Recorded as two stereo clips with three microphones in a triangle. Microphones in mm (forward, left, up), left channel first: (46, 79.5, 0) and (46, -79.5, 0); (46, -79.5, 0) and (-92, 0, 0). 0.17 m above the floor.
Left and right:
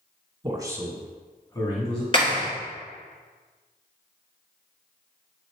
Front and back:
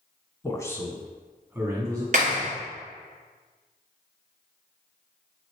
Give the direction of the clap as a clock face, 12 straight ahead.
7 o'clock.